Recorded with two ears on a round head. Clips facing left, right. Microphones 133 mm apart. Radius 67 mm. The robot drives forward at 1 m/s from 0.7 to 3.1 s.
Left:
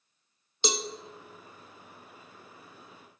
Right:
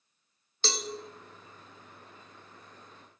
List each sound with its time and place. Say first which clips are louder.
0.6 s a cowbell: left 4 dB; 15° left (ahead or behind), 0.5 m; by 0.9 s 10° left (ahead or behind), 0.7 m